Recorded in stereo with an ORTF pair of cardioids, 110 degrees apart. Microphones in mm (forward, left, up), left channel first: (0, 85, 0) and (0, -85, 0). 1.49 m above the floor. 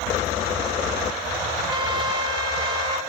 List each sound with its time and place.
1.7 s a trumpet: 25° right, 3 m